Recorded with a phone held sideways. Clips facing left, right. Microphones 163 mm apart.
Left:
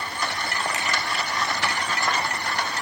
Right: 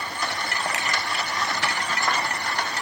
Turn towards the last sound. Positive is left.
turn(degrees=-85)